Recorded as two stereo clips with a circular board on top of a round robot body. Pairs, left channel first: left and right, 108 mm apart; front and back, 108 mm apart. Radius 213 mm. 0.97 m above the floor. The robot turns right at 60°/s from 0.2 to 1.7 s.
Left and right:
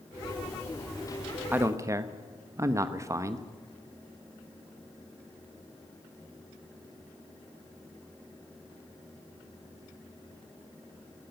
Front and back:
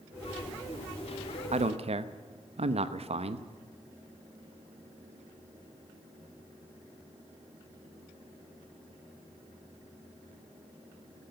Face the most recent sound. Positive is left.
turn(degrees=-155)